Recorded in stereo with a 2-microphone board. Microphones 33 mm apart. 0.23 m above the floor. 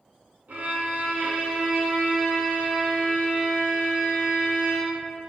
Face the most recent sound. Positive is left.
turn(degrees=-55)  # may be behind; listen again after turning